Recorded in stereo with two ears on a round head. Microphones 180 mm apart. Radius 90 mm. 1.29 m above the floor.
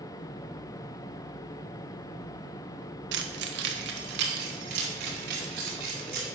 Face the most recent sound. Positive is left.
turn(degrees=-55)  # may be behind; listen again after turning